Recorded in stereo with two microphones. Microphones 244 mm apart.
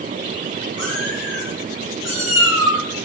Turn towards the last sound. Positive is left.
turn(degrees=80)